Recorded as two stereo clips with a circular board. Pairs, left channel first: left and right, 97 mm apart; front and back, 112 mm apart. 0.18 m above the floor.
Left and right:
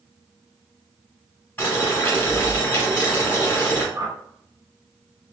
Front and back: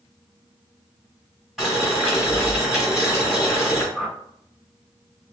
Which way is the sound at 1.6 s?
95° left.